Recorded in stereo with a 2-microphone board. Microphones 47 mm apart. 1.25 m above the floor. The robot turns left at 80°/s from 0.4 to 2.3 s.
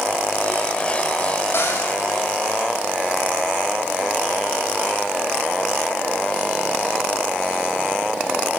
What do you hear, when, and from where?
1.5 s a cupboard door: 60° left (ahead or behind), 9 m; by 1.9 s 85° left, 9 m